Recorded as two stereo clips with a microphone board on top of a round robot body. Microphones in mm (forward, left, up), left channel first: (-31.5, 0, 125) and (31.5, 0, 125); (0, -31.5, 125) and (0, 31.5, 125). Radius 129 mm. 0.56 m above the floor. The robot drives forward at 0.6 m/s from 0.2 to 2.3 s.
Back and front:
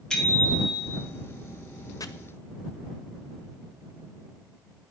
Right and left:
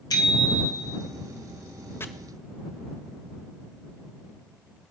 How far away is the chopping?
About 0.6 m.